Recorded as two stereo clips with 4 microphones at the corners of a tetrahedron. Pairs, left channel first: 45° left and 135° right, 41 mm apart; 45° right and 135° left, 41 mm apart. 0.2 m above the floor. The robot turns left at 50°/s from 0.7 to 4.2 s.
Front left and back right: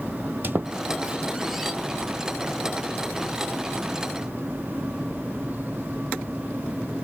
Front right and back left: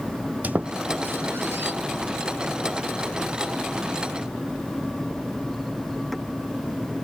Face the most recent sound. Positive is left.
turn(degrees=10)